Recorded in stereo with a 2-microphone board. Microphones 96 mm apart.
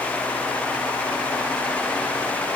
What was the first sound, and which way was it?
Only background noise.